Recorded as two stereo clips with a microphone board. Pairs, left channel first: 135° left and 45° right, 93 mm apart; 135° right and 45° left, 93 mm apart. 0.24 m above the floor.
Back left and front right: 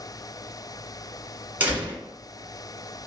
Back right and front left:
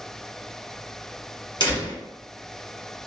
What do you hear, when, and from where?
1.6 s a door slam: 115° right, 1.8 m